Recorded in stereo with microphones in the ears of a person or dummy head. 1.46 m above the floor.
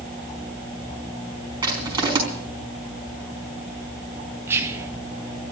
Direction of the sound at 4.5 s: 15° right (ahead or behind).